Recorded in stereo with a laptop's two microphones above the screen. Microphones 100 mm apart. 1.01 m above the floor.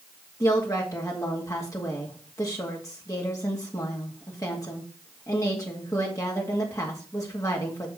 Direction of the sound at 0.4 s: 30° left (ahead or behind).